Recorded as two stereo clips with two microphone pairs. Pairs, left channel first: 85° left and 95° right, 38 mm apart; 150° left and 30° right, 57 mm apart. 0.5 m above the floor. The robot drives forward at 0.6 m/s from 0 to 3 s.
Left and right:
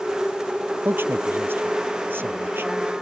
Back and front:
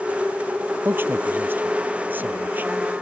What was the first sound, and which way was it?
A man speaking, 85° right.